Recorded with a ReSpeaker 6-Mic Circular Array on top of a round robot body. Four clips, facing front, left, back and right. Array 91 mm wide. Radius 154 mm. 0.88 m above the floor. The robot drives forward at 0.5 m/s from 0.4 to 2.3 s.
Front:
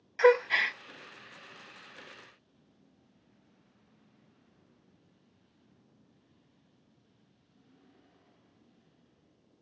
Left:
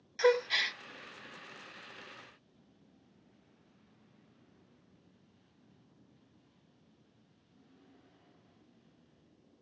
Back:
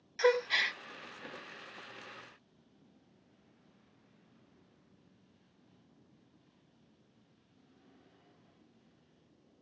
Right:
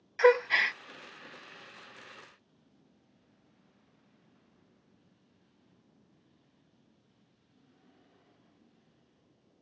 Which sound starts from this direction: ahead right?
A gasp, at 0.2 s.